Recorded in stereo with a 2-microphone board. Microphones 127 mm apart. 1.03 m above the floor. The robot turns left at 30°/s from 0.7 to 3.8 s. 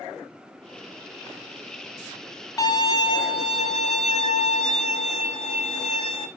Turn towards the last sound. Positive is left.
turn(degrees=105)